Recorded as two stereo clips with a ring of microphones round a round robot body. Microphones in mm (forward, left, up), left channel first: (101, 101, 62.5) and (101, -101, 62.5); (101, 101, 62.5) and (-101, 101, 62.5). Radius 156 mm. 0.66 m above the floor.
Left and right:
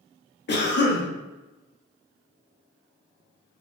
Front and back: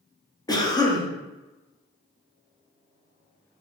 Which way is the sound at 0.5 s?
70° left.